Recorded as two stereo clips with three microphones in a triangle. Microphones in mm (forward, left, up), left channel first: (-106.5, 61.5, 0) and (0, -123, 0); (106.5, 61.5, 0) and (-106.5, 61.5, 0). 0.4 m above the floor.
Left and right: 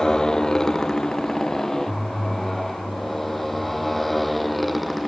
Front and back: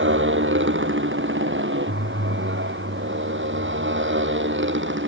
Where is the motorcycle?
155° right; by 5.1 s 150° right.